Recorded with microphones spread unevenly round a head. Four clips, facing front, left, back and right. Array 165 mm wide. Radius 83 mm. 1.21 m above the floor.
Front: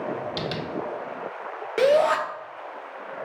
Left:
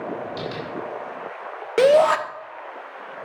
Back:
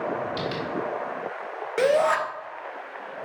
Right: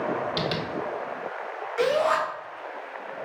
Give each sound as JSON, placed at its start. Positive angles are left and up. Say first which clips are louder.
{"t": 0.4, "sound": "tapping", "louder": "right 2 dB, back 1 dB", "azimuth_deg": -60, "distance_m": 1.6}
{"t": 1.8, "sound": "a shout", "louder": "left 8 dB, front 2 dB", "azimuth_deg": 80, "distance_m": 0.8}